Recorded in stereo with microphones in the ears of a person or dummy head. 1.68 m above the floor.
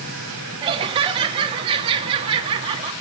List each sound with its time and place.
0.6 s laughter: 30° right (ahead or behind), 3 m